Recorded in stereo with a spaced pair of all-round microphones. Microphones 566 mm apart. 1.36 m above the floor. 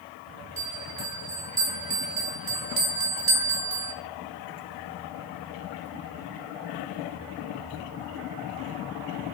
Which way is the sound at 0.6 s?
40° right (ahead or behind).